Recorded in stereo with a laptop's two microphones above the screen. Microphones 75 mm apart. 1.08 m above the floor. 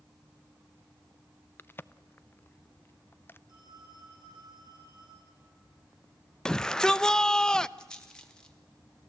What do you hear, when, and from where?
1.6 s a crack: 25° left (ahead or behind), 0.5 m
3.5 s a phone ringing: 60° right (ahead or behind), 6 m
6.5 s a shout: 10° left (ahead or behind), 0.6 m
7.8 s a rattle: 10° left (ahead or behind), 1.2 m